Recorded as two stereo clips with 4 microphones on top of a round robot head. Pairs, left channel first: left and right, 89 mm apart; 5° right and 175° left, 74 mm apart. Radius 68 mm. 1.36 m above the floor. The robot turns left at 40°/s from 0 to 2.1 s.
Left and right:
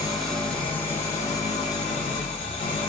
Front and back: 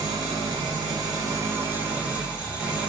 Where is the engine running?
175° right, 1.6 m; by 2.9 s 100° left, 1.6 m.